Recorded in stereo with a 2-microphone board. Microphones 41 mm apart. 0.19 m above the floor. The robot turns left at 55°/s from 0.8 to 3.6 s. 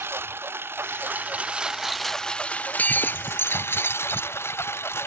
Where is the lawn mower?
75° right (ahead or behind); by 5.1 s 85° left.